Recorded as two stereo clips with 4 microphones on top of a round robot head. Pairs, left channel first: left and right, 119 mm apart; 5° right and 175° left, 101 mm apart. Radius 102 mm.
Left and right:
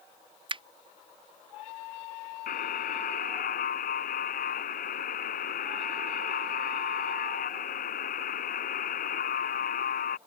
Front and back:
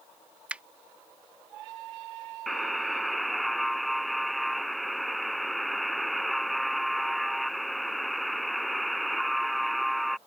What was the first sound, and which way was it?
A finger snap, 110° right.